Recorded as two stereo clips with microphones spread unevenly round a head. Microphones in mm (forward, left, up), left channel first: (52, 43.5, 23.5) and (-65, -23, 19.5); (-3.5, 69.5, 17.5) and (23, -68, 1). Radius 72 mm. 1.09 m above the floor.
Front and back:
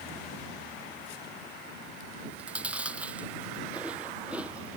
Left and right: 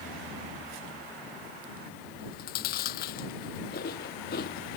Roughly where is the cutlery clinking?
I don't hear cutlery clinking.